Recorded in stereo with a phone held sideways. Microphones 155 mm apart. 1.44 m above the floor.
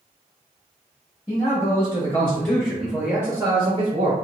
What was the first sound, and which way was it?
A man speaking, 45° left (ahead or behind).